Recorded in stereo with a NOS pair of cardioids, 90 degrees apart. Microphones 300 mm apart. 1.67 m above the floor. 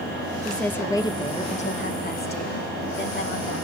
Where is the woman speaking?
Straight ahead, 2 m; by 3.6 s 45° left, 3.5 m.